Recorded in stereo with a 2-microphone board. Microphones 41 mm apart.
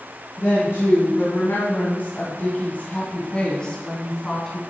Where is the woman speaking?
70° left (ahead or behind), 3 m; by 4.6 s 5° left (ahead or behind), 3 m.